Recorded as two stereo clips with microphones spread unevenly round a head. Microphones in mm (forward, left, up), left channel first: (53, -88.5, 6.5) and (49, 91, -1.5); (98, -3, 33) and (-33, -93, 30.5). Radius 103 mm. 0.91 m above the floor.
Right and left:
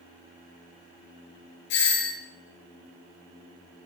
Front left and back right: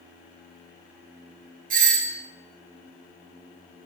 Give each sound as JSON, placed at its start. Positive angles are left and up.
{"t": 1.7, "sound": "a doorbell", "azimuth_deg": -120, "distance_m": 4.0}